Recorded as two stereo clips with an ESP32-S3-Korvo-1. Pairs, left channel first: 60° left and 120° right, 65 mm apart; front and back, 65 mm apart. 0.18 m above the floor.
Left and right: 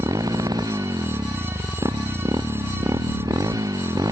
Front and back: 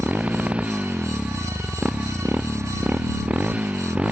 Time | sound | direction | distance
0.0 | a motorcycle | 110° right | ?